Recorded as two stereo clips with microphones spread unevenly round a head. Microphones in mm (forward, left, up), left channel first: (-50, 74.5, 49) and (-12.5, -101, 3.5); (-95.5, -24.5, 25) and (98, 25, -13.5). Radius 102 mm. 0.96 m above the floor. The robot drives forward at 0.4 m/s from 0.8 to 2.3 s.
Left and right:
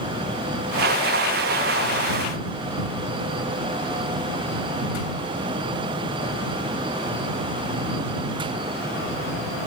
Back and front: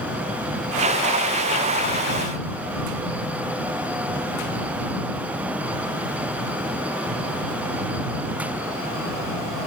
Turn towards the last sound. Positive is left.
No sound to turn to.